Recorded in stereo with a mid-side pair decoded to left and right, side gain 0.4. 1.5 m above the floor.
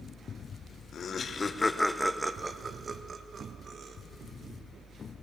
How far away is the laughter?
About 1.3 m.